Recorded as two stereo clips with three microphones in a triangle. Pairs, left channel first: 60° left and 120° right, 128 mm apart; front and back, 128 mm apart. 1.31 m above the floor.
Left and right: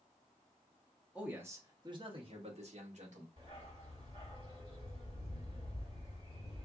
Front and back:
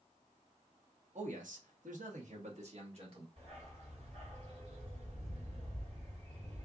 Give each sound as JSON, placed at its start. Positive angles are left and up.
{"t": 1.1, "sound": "a man speaking", "azimuth_deg": 160, "distance_m": 0.9}
{"t": 3.4, "sound": "a dog barking", "azimuth_deg": -155, "distance_m": 1.6}